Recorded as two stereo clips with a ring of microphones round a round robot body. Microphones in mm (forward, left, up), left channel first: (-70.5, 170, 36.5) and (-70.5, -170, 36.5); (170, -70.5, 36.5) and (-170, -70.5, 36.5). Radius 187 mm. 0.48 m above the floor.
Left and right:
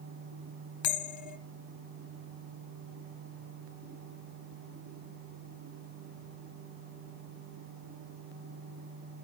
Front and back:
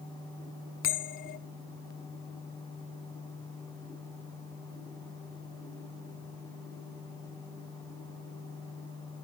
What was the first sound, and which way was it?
A bell, 65° left.